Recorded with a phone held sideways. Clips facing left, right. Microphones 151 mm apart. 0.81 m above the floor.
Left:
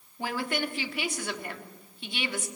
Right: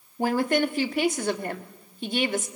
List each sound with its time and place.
0.2 s a woman speaking: 45° right (ahead or behind), 1.4 m